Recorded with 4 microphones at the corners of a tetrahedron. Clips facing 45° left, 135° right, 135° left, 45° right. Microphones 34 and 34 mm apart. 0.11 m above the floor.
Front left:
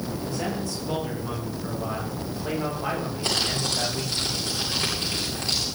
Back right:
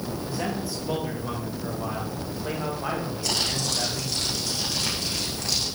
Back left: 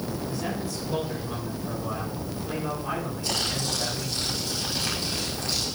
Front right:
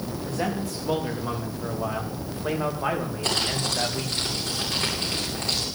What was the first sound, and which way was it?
A man speaking, 55° right.